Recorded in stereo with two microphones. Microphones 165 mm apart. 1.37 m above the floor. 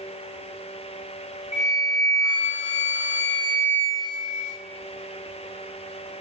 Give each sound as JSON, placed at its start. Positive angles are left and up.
{"t": 1.5, "sound": "a flute", "side_deg": 45, "distance_m": 1.2}